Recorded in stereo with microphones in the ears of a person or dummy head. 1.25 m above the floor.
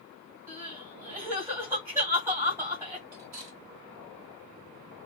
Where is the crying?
15° right (ahead or behind), 1.8 m.